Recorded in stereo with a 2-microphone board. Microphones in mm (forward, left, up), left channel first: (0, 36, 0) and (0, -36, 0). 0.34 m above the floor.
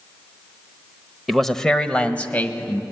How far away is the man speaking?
About 1.1 m.